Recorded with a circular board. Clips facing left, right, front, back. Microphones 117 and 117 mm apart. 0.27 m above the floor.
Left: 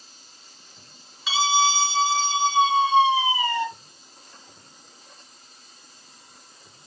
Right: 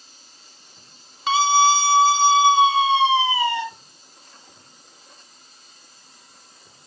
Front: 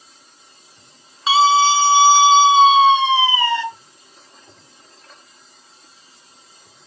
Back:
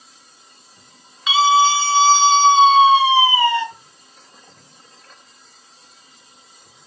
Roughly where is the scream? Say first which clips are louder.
Right 5 dB, front 1 dB; ahead right.